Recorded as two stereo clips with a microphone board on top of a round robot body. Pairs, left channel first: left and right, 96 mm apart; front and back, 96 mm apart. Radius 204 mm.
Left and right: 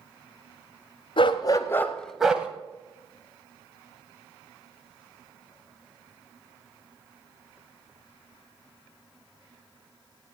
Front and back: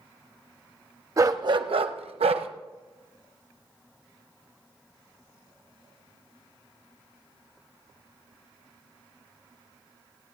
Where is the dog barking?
125° left, 0.8 m; by 2.5 s 165° right, 1.0 m.